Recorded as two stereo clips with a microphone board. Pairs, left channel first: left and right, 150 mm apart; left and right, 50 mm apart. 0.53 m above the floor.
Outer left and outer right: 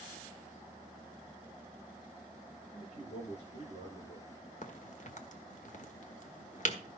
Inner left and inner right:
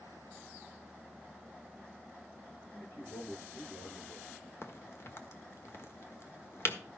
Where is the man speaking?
50° left (ahead or behind), 9.5 m.